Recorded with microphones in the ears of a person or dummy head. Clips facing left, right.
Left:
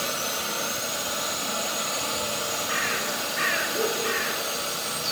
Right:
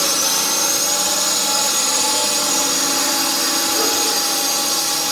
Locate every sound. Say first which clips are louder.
0.0 s a drone: right 7 dB; 70° right (ahead or behind)